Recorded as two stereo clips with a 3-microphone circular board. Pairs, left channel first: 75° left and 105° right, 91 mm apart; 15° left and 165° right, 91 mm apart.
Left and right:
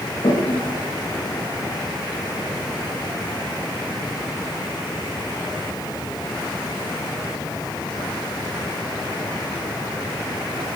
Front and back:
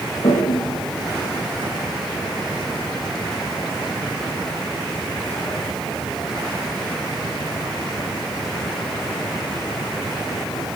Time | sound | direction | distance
0.2 | a toilet flushing | 45° left | 7.5 m